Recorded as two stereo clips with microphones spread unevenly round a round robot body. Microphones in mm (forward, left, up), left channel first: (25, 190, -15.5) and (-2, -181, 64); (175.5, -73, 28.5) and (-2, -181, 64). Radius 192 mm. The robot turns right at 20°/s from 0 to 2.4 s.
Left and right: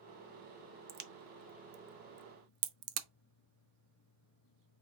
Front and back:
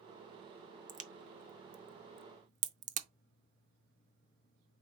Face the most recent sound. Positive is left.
turn(degrees=-125)